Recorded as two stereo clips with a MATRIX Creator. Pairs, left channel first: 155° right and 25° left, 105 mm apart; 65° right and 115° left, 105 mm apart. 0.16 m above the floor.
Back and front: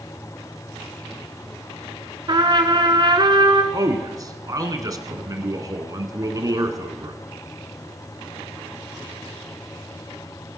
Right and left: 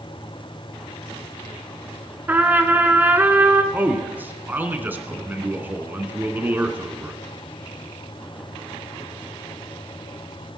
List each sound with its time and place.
2.3 s a trumpet: 45° left, 0.9 m
3.7 s a man speaking: 50° left, 1.3 m